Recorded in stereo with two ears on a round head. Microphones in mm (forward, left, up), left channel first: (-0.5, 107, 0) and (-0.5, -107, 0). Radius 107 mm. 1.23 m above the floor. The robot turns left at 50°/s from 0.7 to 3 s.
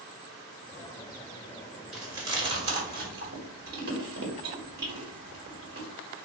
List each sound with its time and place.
1.9 s chewing: centre (ahead or behind), 1.2 m; by 5.9 s 40° right (ahead or behind), 1.2 m